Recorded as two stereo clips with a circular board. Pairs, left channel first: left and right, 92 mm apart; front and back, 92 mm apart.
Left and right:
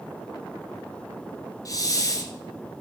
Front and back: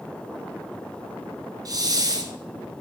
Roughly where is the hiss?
Behind left.